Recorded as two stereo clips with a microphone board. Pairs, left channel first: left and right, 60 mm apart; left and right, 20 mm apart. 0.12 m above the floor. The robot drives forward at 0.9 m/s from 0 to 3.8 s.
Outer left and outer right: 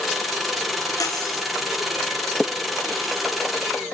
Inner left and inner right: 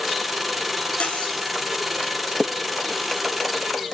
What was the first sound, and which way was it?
Cutlery clinking, 80° left.